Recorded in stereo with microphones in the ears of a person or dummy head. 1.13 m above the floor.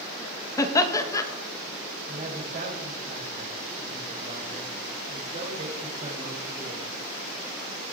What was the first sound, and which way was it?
Laughter, 20° left (ahead or behind).